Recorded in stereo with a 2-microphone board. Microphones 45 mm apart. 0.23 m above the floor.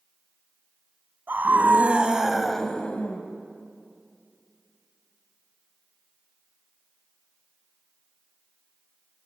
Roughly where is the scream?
Right.